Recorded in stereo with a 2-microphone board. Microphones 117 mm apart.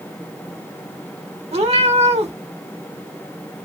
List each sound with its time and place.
1.5 s a cat meowing: 60° right (ahead or behind), 0.9 m